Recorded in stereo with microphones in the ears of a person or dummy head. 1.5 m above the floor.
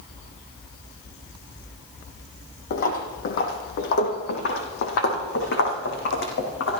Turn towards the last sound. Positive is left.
turn(degrees=70)  # may be behind; listen again after turning